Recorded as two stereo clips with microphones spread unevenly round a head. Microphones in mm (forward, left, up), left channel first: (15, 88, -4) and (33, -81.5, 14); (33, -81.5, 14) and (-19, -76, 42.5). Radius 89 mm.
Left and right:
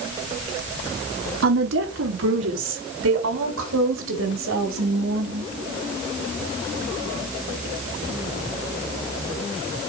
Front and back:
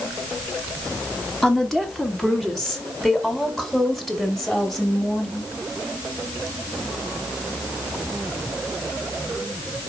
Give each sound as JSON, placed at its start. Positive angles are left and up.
{"t": 1.4, "sound": "a woman speaking", "azimuth_deg": -85, "distance_m": 2.5}